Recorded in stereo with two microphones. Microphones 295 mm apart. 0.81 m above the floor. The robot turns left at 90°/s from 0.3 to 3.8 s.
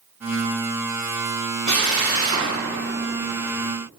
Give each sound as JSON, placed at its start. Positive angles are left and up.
{"t": 1.7, "sound": "a drill", "side_deg": -65, "distance_m": 7.0}